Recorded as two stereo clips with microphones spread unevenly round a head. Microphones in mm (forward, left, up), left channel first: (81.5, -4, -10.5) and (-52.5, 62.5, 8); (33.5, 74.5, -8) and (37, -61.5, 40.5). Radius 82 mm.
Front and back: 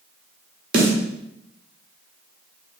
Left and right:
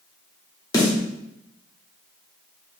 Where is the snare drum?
135° left, 1.0 m.